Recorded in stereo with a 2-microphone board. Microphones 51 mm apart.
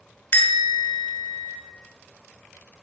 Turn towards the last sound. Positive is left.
turn(degrees=45)  # may be behind; listen again after turning